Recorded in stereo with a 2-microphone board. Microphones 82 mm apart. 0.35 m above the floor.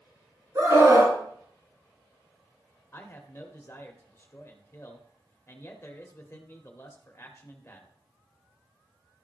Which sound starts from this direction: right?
A scream, at 0.6 s.